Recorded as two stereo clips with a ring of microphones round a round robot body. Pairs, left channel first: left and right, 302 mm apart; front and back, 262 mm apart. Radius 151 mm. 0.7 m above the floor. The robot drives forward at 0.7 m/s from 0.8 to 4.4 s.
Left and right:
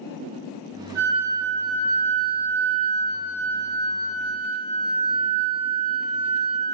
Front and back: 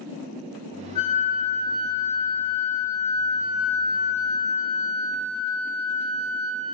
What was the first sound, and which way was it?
A flute, 30° right.